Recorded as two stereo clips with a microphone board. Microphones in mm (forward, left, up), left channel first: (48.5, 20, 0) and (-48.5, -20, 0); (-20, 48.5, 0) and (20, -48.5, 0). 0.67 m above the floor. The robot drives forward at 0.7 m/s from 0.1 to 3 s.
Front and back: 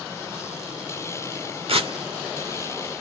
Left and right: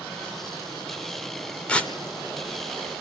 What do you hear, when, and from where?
1.7 s tearing paper: 170° right, 1.5 m